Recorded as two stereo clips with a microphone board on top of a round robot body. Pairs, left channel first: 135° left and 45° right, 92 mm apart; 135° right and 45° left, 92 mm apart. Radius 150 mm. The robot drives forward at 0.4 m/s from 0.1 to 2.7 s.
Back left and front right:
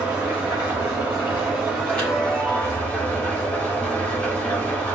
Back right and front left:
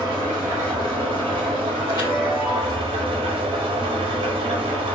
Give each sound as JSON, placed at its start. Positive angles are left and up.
{"t": 0.0, "sound": "an engine running", "azimuth_deg": 20, "distance_m": 1.4}
{"t": 1.9, "sound": "a chime", "azimuth_deg": -160, "distance_m": 1.8}